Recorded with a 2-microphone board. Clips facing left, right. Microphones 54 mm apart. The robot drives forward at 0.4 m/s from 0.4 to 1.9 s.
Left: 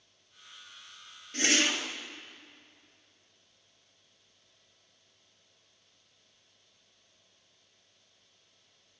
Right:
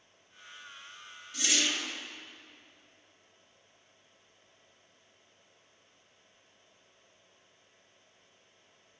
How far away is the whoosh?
About 0.7 m.